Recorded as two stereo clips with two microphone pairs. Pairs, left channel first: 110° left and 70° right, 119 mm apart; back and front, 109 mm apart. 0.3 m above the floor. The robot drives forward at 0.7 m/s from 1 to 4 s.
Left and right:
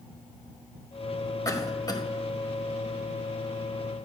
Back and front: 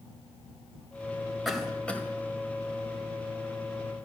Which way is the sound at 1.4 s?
90° left.